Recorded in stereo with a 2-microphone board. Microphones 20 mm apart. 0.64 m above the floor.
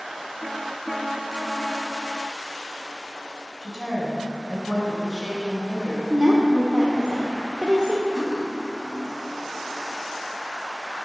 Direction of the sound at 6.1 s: 35° right (ahead or behind).